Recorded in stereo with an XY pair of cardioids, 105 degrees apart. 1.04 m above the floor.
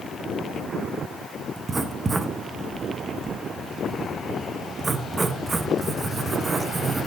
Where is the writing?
30° right, 0.7 m.